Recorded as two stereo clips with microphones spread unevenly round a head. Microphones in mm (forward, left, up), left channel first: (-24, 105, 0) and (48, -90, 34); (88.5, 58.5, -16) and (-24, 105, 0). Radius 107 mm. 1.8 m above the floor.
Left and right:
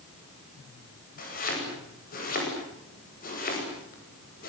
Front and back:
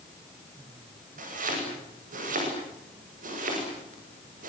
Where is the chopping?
165° left, 10 m.